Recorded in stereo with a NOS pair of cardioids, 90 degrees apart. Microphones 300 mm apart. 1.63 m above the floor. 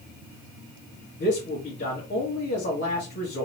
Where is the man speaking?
35° left, 2 m.